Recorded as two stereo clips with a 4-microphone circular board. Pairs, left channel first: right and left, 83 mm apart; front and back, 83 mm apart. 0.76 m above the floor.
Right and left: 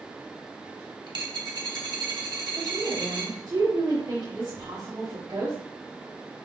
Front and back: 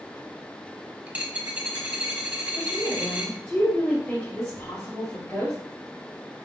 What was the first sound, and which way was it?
A dropped coin, 105° left.